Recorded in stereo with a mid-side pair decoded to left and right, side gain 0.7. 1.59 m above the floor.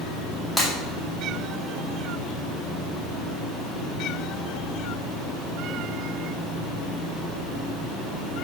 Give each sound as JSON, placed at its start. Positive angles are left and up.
{"t": 0.6, "sound": "breaking glass", "azimuth_deg": 10, "distance_m": 4.0}